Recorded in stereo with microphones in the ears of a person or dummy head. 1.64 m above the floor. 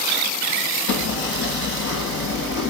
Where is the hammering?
80° left, 6.5 m.